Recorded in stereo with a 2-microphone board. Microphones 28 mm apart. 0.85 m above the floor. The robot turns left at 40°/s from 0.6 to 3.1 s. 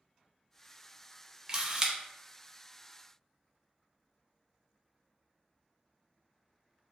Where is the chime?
I don't hear a chime.